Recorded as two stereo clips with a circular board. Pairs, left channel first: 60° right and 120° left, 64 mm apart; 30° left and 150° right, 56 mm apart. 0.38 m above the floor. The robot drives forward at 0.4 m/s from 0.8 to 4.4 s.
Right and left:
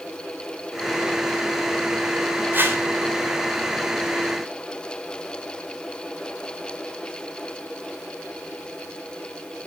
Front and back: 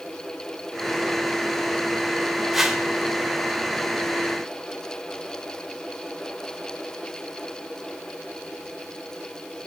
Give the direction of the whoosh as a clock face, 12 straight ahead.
8 o'clock.